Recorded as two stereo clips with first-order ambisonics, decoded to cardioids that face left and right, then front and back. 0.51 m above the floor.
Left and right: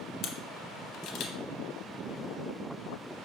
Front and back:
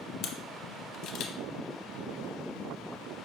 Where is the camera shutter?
45° left, 0.6 m.